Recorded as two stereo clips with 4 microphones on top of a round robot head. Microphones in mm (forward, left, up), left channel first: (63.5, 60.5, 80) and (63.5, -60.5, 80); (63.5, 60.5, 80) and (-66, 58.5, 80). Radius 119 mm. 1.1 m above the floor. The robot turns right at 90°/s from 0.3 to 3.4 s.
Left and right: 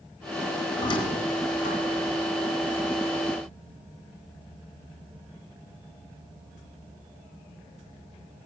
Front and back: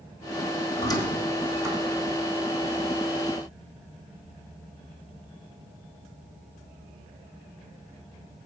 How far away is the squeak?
About 1.2 m.